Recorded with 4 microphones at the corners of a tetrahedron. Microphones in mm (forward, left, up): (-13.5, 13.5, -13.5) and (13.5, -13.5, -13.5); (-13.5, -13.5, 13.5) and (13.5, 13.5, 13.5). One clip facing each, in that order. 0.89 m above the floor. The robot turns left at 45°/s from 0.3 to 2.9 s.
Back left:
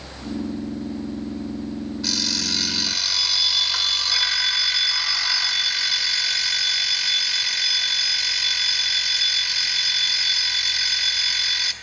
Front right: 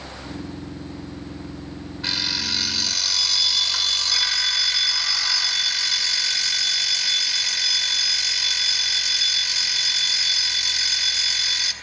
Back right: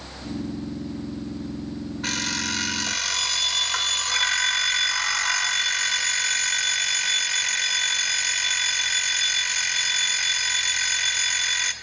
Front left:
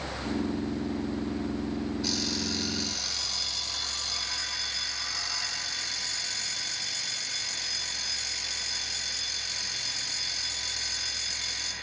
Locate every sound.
2.0 s an alarm clock: 105° right, 1.8 m; by 11.7 s 140° right, 1.8 m